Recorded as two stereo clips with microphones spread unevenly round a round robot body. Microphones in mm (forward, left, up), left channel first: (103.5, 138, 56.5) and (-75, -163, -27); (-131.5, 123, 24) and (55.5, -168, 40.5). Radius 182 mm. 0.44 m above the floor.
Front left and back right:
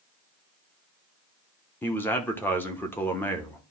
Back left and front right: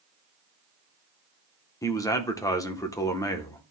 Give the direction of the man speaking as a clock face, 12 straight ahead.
6 o'clock.